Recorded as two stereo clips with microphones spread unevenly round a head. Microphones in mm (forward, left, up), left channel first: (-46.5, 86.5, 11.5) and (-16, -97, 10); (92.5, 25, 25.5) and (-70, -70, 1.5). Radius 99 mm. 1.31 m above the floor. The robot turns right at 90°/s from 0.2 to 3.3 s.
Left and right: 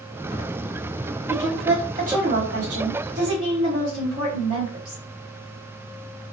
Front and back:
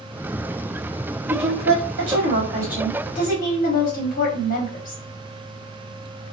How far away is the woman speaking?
About 1.3 m.